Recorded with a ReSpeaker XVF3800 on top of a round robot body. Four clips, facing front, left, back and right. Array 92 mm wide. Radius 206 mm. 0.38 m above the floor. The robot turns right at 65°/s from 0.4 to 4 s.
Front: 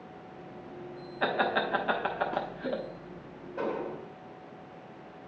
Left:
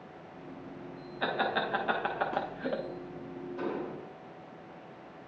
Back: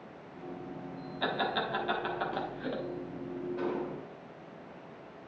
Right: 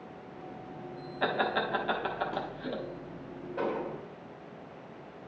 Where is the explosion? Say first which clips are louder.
Right 3 dB, front 5 dB; 75° right, 1.8 m; by 4.1 s 45° right, 1.8 m.